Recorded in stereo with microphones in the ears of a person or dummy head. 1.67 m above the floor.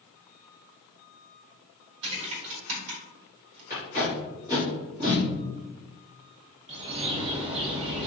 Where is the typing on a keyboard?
75° right (ahead or behind), 1.5 m.